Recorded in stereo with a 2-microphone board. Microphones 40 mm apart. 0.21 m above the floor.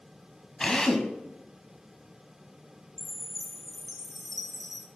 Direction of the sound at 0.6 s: 15° left (ahead or behind).